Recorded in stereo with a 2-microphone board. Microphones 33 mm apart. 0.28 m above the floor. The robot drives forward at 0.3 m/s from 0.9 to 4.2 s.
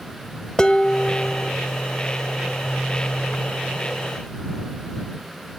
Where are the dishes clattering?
20° left (ahead or behind), 0.6 m.